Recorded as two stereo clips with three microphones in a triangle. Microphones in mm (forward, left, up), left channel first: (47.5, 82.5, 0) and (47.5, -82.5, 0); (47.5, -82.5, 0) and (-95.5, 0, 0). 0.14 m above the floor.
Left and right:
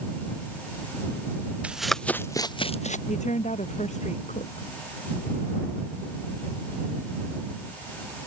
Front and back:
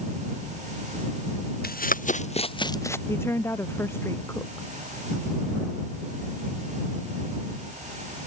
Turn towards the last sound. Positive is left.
turn(degrees=45)